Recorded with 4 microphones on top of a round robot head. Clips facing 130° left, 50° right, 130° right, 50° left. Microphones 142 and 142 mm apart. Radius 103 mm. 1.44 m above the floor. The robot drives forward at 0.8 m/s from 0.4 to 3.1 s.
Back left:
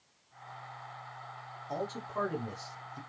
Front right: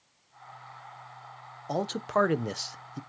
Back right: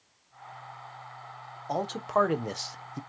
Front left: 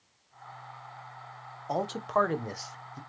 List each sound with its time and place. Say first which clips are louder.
1.7 s a man speaking: front right 8 dB, back right 1 dB; 30° right, 1.2 m; by 3.0 s 95° right, 0.6 m